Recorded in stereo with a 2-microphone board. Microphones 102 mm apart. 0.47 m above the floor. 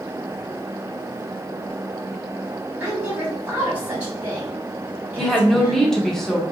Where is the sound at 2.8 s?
20° right (ahead or behind), 2.0 m.